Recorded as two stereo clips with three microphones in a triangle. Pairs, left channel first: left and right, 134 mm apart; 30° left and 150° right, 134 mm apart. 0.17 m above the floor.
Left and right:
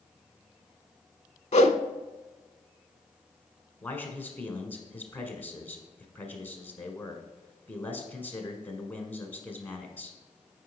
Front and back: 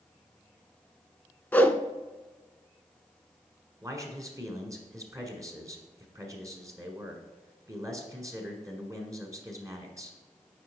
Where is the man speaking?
160° left, 1.3 m.